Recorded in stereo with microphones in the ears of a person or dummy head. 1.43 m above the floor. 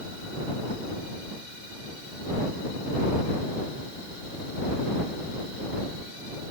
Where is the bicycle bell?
I don't hear a bicycle bell.